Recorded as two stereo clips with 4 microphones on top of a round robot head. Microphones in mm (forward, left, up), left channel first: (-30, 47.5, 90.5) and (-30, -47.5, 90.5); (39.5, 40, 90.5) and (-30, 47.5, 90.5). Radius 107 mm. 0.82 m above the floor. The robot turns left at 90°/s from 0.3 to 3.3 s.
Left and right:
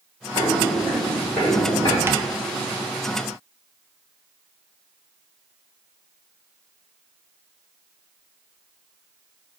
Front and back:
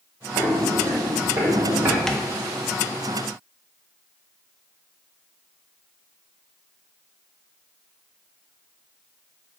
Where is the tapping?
80° right, 0.5 m; by 2.3 s 95° right, 0.5 m.